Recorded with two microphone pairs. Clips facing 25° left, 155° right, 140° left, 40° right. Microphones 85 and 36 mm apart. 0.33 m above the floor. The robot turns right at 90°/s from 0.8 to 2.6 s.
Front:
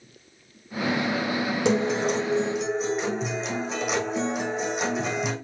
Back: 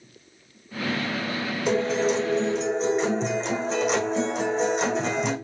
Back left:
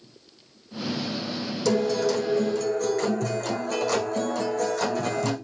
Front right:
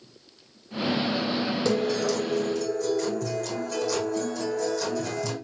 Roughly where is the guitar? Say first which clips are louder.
Back 2 dB, back left 4 dB; ahead left.